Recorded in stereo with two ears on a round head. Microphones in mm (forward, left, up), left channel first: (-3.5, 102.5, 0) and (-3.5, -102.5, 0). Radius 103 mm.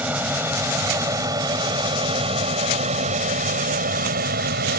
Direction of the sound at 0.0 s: 5° right (ahead or behind).